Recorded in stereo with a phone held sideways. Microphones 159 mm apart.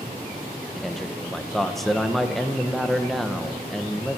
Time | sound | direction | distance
0.8 | a man speaking | centre (ahead or behind) | 0.9 m